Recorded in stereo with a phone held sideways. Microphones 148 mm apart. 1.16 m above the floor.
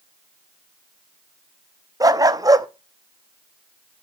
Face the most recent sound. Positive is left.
turn(degrees=-25)  # may be behind; listen again after turning